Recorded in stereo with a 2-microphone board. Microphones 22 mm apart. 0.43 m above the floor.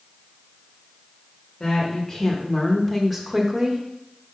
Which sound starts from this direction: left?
A woman speaking, at 1.6 s.